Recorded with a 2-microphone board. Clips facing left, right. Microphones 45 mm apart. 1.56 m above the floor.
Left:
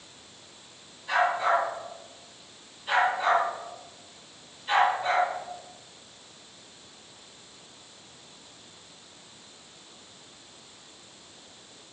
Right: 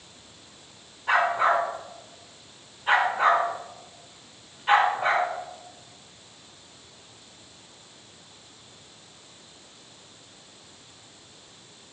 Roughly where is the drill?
I don't hear a drill.